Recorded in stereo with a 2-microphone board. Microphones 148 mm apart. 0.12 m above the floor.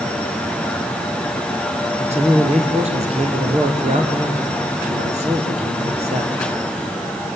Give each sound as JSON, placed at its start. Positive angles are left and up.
{"t": 2.0, "sound": "a man speaking", "side_deg": -50, "distance_m": 3.0}